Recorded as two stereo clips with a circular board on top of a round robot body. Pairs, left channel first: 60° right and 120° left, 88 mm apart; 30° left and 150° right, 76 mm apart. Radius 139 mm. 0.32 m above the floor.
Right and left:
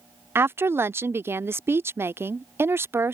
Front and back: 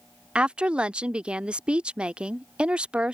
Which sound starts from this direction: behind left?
A woman speaking, at 0.3 s.